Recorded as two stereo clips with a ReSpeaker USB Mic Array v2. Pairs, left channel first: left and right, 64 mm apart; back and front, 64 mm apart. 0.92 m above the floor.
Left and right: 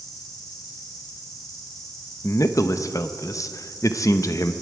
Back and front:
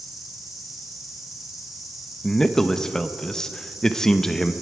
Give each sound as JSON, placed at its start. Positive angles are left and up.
{"t": 0.0, "sound": "an insect", "azimuth_deg": 80, "distance_m": 4.0}
{"t": 2.2, "sound": "a man speaking", "azimuth_deg": 100, "distance_m": 0.7}